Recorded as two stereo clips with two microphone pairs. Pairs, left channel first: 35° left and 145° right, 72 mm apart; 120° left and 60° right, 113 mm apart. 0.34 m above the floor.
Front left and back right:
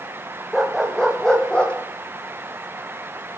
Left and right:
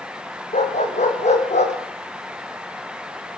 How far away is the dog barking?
About 5.5 m.